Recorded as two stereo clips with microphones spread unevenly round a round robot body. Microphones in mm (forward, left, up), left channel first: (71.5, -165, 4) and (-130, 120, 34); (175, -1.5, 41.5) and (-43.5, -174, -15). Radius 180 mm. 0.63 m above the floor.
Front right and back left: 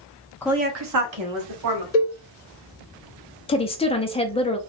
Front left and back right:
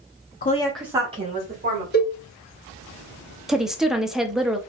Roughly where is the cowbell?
Ahead.